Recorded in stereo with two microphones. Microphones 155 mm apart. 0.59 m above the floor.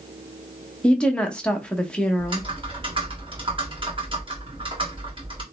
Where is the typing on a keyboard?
35° right (ahead or behind), 1.6 m.